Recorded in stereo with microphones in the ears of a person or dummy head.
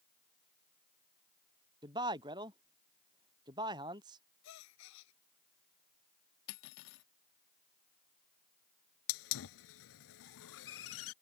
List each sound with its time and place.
1.8 s a man speaking: 20° right (ahead or behind)
4.4 s a gasp: 65° left (ahead or behind)
6.5 s cutlery clinking: 50° left (ahead or behind)
9.1 s a hiss: 80° left